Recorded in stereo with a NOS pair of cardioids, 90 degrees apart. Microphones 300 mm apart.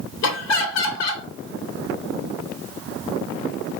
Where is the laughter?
60° left, 1.2 m.